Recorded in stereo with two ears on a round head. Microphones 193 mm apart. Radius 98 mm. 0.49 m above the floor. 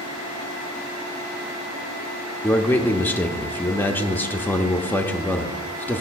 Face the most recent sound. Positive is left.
turn(degrees=10)  # may be behind; listen again after turning